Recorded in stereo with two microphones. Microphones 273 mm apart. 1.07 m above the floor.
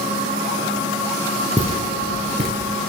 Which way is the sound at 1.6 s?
20° right (ahead or behind).